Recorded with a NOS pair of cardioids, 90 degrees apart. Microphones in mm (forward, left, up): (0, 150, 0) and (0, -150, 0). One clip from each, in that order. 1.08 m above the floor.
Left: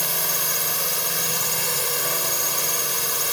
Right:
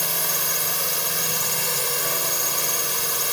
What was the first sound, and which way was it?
A drone, straight ahead.